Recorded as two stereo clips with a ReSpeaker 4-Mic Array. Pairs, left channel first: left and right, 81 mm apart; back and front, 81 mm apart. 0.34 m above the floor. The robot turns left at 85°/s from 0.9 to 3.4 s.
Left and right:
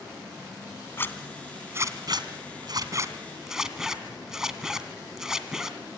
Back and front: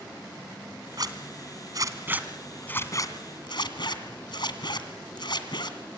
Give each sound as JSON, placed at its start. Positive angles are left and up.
{"t": 1.0, "sound": "a zipper", "azimuth_deg": 35, "distance_m": 1.9}